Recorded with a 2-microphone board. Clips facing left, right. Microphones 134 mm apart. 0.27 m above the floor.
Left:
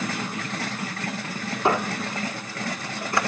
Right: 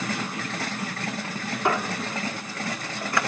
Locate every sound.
1.6 s a squeak: 25° left (ahead or behind), 1.5 m